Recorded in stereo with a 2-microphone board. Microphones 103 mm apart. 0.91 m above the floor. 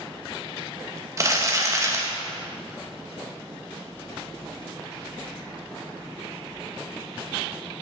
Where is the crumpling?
30° right (ahead or behind), 1.1 m.